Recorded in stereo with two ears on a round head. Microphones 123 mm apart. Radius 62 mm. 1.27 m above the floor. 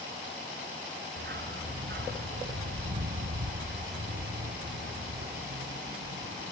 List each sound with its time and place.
1.2 s a dog barking: 80° right